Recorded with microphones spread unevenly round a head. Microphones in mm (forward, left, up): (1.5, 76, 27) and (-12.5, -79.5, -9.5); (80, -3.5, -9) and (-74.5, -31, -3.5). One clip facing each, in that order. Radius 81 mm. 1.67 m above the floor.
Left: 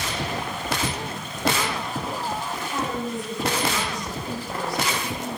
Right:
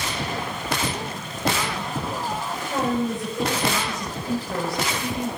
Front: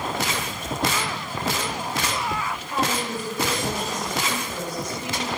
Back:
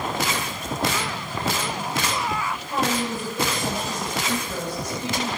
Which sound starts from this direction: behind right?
A woman speaking, at 2.7 s.